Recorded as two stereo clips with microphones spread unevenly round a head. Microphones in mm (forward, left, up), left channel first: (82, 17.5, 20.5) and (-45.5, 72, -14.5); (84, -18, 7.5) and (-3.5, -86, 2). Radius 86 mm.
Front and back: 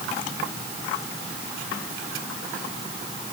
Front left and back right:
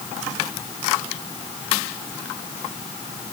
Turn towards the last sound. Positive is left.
No sound to turn to.